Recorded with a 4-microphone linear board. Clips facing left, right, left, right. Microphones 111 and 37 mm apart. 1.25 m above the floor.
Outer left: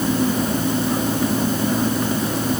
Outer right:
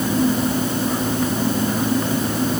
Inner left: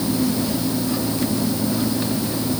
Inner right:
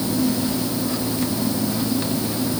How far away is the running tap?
No running tap in this recording.